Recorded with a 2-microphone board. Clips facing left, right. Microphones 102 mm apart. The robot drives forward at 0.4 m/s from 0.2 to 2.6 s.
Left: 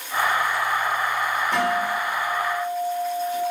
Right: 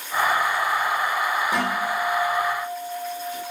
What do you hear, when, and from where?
1.5 s a guitar: 10° right (ahead or behind), 5.5 m